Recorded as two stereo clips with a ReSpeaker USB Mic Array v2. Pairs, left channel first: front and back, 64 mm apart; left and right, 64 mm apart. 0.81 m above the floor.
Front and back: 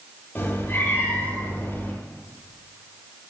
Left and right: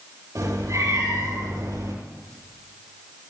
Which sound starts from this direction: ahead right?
A cat meowing, at 0.3 s.